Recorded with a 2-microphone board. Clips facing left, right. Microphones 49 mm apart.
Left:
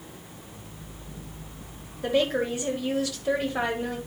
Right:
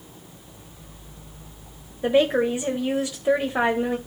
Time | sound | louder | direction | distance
2.0 | a woman speaking | right 5 dB | 20° right (ahead or behind) | 0.9 m